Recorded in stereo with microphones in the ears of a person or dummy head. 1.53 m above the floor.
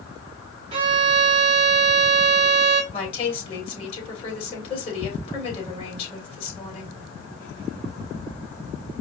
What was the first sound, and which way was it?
A violin, 25° right (ahead or behind).